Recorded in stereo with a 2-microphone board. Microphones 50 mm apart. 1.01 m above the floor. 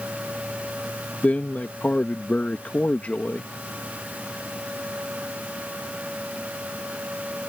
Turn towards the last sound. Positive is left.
turn(degrees=30)  # may be behind; listen again after turning